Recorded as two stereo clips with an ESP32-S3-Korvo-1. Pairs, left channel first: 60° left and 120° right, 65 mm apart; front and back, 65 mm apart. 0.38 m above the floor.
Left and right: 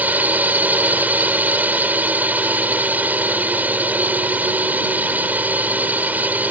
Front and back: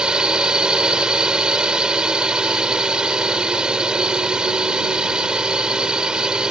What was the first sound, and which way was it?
A drone, 120° right.